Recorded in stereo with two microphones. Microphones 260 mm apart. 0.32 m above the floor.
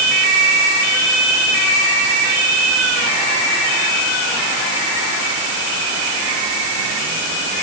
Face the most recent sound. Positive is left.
No sound to turn to.